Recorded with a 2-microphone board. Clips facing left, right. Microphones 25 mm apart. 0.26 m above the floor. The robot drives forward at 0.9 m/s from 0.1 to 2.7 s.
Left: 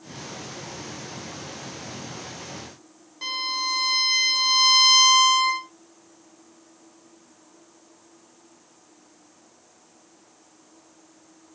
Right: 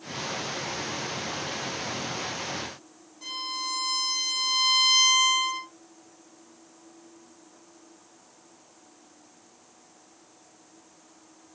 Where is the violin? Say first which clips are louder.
Left 6 dB; 55° left (ahead or behind), 3.5 m.